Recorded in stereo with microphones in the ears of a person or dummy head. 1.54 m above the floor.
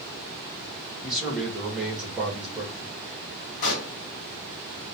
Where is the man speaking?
5° right (ahead or behind), 1.9 m.